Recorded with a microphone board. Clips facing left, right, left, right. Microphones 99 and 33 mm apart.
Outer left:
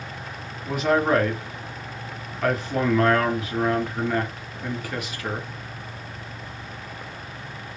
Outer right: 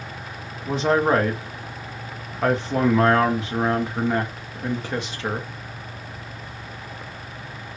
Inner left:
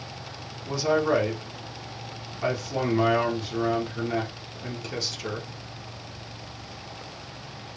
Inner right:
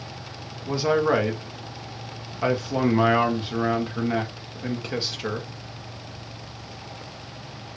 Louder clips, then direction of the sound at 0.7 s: Outer right 1 dB, inner right 2 dB; 30° right (ahead or behind).